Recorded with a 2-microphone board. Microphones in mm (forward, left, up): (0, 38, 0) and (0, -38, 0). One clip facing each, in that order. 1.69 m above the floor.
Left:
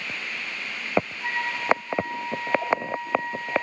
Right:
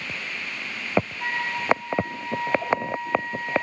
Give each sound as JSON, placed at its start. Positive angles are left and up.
{"t": 1.2, "sound": "a flute", "side_deg": -70, "distance_m": 5.0}